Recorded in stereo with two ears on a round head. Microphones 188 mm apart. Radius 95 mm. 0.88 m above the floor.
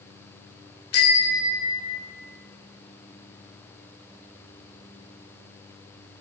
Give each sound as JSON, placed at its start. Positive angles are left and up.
{"t": 0.9, "sound": "a bicycle bell", "side_deg": 75, "distance_m": 2.5}